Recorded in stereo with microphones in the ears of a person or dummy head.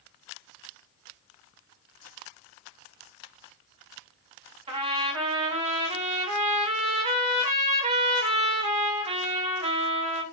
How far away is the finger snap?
No finger snap in this recording.